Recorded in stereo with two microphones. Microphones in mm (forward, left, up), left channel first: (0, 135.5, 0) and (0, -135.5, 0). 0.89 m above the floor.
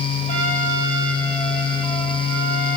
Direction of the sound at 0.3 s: 30° left (ahead or behind).